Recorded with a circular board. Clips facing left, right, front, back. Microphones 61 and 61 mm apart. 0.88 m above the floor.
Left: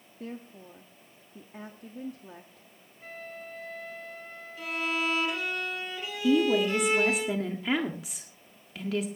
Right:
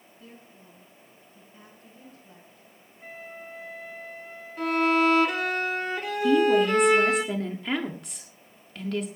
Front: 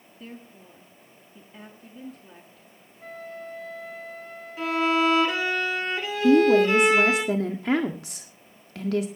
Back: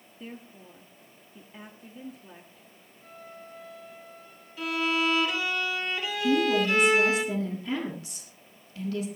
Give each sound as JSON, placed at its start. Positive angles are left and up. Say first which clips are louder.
{"t": 0.2, "sound": "a woman speaking", "louder": "left 9 dB, even", "azimuth_deg": 95, "distance_m": 1.3}
{"t": 3.0, "sound": "a flute", "louder": "right 1 dB, front 8 dB", "azimuth_deg": -10, "distance_m": 2.0}
{"t": 4.6, "sound": "a violin", "louder": "right 9 dB, front 5 dB", "azimuth_deg": -55, "distance_m": 2.5}
{"t": 6.2, "sound": "a woman speaking", "louder": "right 3 dB, front 7 dB", "azimuth_deg": 5, "distance_m": 1.6}